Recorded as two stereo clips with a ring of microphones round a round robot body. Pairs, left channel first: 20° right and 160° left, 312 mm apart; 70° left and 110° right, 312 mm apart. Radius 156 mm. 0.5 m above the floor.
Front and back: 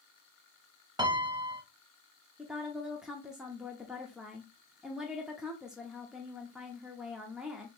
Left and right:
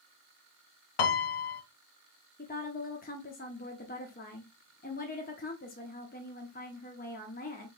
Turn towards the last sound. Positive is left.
turn(degrees=70)